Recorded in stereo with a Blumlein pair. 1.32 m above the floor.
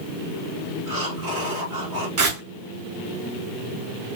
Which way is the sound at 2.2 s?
40° right.